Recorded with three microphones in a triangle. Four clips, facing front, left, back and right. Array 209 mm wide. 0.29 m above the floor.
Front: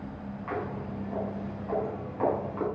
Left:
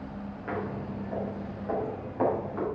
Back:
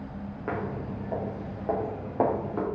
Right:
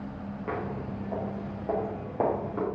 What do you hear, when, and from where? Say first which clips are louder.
0.5 s footsteps: even, back 2 dB; 165° right, 5 m; by 2.6 s 155° right, 6 m